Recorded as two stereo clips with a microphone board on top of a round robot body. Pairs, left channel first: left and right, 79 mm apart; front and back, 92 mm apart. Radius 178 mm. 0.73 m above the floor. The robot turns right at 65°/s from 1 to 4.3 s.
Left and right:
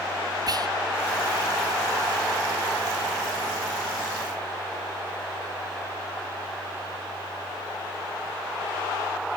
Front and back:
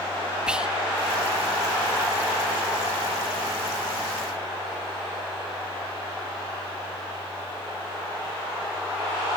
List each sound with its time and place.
0.5 s whispering: 100° right, 1.7 m